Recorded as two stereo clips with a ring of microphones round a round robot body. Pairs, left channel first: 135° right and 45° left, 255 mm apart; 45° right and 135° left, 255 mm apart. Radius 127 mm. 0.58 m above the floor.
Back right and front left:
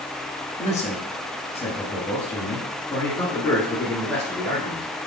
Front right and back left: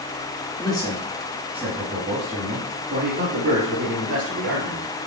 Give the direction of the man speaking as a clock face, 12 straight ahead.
3 o'clock.